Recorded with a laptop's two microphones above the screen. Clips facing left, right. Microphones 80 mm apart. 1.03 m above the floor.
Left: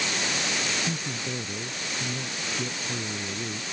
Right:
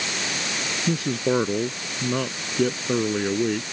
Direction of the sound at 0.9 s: 85° right.